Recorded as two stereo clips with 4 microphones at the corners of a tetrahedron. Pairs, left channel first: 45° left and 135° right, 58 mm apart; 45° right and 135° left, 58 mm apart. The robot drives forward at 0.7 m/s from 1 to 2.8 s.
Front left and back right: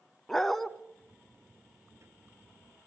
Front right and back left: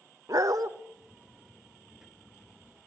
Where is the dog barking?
130° left, 0.8 m.